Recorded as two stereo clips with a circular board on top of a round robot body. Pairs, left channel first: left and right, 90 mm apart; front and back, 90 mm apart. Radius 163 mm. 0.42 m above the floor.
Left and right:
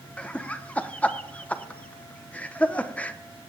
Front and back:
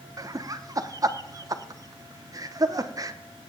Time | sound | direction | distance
0.2 | laughter | 160° left | 0.9 m